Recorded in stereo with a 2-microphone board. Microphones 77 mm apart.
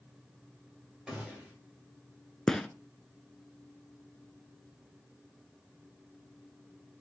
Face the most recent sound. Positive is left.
turn(degrees=5)  # may be behind; listen again after turning